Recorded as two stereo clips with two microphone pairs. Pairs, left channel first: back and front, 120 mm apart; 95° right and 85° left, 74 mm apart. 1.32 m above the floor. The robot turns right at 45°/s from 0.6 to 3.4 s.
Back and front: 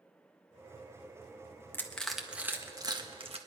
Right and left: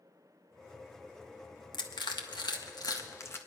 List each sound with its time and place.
1.7 s crushing: 110° right, 1.4 m; by 3.4 s 35° right, 1.4 m